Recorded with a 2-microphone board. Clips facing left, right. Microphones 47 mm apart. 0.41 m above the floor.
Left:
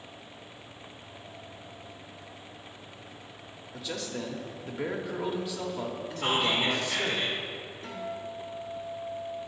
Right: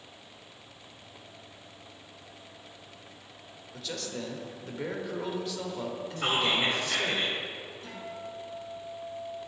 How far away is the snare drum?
No snare drum in this recording.